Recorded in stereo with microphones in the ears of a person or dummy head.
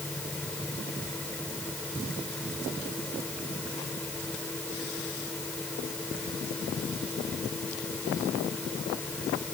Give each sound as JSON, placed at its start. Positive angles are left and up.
{"t": 0.0, "sound": "a fan", "side_deg": 10}